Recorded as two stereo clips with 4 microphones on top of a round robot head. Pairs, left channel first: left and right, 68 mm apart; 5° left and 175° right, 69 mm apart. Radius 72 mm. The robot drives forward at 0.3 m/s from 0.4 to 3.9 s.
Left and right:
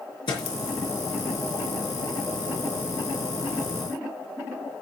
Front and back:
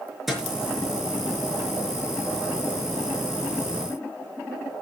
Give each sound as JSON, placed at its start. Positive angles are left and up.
{"t": 0.3, "sound": "a thud", "azimuth_deg": 100, "distance_m": 4.5}